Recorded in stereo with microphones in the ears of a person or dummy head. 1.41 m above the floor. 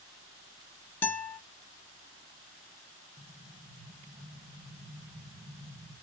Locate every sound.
1.0 s a guitar: 10° left (ahead or behind), 1.1 m
3.2 s an explosion: 20° right (ahead or behind), 0.9 m